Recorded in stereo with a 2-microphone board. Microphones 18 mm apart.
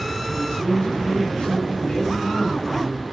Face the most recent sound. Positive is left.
turn(degrees=85)